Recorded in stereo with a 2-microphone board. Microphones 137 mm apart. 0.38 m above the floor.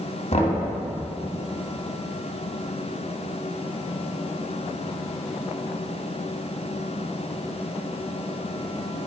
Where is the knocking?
50° left (ahead or behind), 2 m.